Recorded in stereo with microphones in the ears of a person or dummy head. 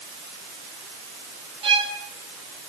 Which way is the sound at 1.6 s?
25° right (ahead or behind).